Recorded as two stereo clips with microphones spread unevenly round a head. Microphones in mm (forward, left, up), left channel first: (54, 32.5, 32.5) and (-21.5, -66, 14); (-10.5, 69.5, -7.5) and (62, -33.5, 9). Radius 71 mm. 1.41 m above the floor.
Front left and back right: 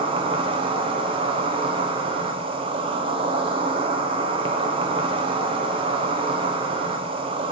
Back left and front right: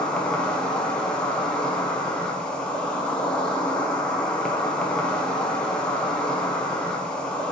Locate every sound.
0.0 s an insect: 155° right, 1.2 m